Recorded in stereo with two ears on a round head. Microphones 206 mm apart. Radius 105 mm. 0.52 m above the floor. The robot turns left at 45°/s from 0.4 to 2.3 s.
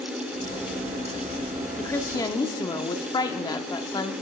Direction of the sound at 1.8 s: 10° left (ahead or behind).